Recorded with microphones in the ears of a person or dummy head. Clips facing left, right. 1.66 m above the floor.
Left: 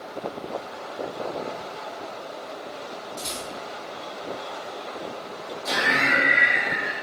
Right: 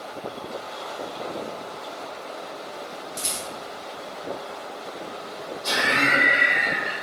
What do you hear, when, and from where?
3.2 s a rattle: 80° right, 1.3 m
5.6 s laughter: 55° right (ahead or behind), 1.3 m